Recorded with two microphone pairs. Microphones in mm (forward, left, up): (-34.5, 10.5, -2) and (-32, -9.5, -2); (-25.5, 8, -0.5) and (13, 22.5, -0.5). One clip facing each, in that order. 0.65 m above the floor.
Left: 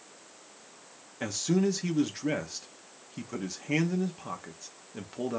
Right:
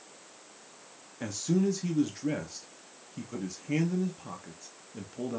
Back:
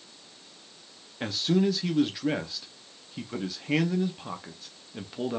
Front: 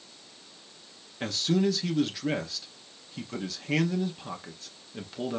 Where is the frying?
I don't hear frying.